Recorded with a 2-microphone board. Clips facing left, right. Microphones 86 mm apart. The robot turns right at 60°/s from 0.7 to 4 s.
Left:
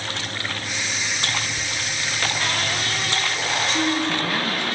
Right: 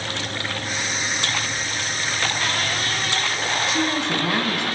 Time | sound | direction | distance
1.6 | laughter | 55° left (ahead or behind) | 8.5 m
3.7 | a woman speaking | centre (ahead or behind) | 3.5 m